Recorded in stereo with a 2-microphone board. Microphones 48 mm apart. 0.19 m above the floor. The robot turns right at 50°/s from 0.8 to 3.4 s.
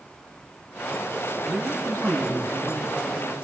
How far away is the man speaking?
About 1.8 m.